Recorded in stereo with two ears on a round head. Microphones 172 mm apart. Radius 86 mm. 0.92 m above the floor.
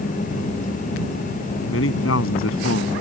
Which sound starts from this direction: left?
A man speaking, at 1.7 s.